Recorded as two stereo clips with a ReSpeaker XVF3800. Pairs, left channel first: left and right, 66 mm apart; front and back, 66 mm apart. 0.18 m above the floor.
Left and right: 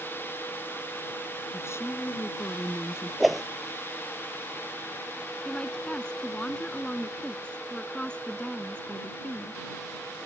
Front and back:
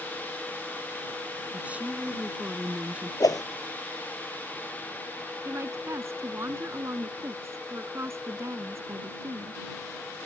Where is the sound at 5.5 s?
160° left.